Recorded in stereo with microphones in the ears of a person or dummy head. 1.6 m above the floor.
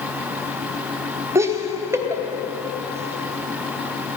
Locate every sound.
1.4 s laughter: 20° right (ahead or behind), 1.1 m